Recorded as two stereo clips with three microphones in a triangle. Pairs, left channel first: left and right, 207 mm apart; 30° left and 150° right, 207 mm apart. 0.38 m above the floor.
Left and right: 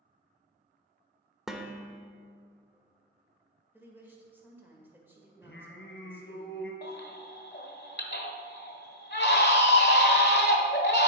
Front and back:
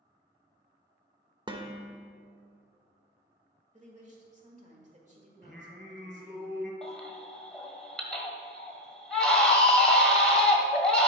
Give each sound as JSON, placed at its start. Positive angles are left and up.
{"t": 1.5, "sound": "dishes clattering", "azimuth_deg": -175, "distance_m": 0.7}
{"t": 3.7, "sound": "a woman speaking", "azimuth_deg": -165, "distance_m": 1.5}
{"t": 5.4, "sound": "singing", "azimuth_deg": 120, "distance_m": 1.7}
{"t": 6.8, "sound": "a baby crying", "azimuth_deg": 115, "distance_m": 1.2}